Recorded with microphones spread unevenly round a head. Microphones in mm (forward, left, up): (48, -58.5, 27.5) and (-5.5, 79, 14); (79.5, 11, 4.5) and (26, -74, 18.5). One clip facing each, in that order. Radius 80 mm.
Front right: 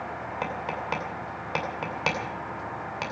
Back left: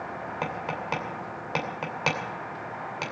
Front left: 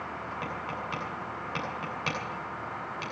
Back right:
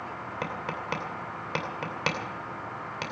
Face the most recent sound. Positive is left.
turn(degrees=-160)